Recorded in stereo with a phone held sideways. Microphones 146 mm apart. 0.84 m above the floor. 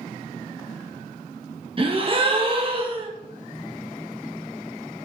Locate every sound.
1.8 s a gasp: 35° right (ahead or behind), 0.9 m